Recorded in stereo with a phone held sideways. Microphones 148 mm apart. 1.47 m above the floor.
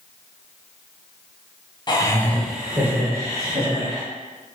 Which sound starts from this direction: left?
Laughter, at 1.9 s.